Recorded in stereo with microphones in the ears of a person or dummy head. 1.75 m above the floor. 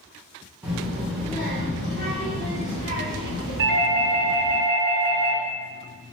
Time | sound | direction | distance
0.6 | a child speaking | 10° right (ahead or behind) | 0.9 m
3.6 | a doorbell | 50° right (ahead or behind) | 0.8 m